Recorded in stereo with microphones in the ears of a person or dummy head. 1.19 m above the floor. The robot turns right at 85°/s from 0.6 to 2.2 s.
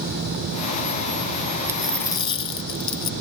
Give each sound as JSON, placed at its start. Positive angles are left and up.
{"t": 1.7, "sound": "a dropped coin", "azimuth_deg": -20}